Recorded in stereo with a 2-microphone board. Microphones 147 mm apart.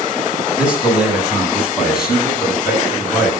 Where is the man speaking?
5° right (ahead or behind), 9 m; by 3.3 s centre (ahead or behind), 11 m.